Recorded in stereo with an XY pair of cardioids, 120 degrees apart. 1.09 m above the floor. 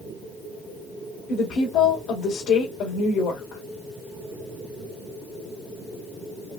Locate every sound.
1.3 s a woman speaking: 65° left, 2.5 m